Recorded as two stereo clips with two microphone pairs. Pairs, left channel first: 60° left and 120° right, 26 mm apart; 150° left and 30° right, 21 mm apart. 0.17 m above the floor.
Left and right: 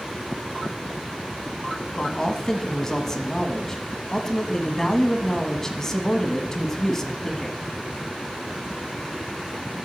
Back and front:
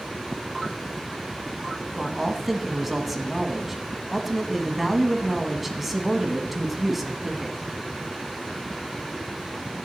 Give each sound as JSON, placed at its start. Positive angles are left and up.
{"t": 1.9, "sound": "a man speaking", "azimuth_deg": 35, "distance_m": 1.1}